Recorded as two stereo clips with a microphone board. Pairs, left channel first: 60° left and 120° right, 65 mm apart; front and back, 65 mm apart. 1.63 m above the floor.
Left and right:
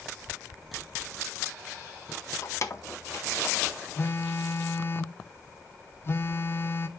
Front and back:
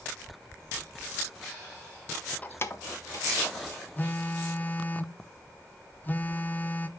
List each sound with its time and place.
2.4 s keys jangling: 55° left, 0.8 m; by 3.7 s 10° left, 2 m
4.0 s a phone buzzing: 40° left, 0.7 m